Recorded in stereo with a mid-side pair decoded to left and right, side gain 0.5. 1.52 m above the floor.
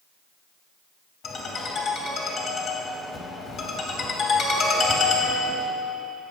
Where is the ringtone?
65° left, 2.5 m.